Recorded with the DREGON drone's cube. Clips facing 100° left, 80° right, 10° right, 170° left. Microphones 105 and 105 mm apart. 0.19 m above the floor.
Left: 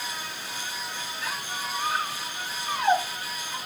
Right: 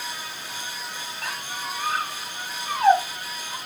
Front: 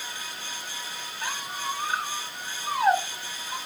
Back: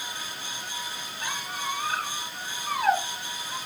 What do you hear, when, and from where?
1.2 s a squeak: 75° right, 1.4 m